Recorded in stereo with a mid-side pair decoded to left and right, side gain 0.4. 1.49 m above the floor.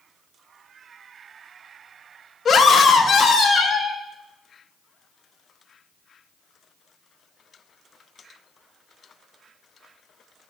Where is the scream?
55° left, 1.2 m; by 4.0 s 60° left, 2 m.